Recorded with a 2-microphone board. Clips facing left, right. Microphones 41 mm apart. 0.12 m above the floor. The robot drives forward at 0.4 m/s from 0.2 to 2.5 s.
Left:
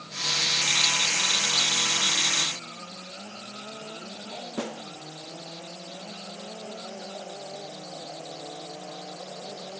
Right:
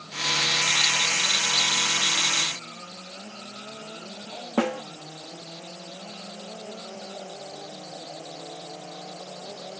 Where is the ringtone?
I don't hear a ringtone.